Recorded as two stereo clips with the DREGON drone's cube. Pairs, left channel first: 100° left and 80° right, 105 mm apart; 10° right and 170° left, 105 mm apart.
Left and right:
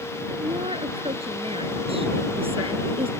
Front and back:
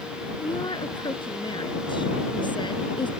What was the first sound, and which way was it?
A woman speaking, 55° right.